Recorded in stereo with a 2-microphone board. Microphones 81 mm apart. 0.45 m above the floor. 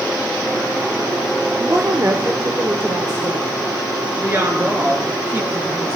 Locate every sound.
1.6 s a woman speaking: 35° right (ahead or behind), 1.5 m; by 3.5 s 30° right (ahead or behind), 2 m
4.2 s a woman speaking: 35° right (ahead or behind), 7 m